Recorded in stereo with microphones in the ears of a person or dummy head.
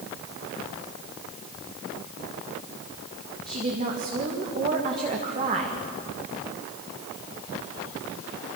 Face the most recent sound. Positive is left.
turn(degrees=-35)  # may be behind; listen again after turning